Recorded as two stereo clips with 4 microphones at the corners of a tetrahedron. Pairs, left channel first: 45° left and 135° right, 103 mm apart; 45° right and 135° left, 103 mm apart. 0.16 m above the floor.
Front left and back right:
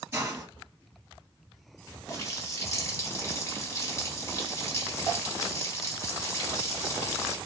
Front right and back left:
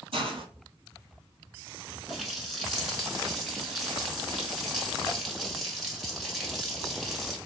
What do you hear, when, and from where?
0.1 s a hiss: 155° left, 1.0 m
2.1 s a running tap: 45° left, 0.8 m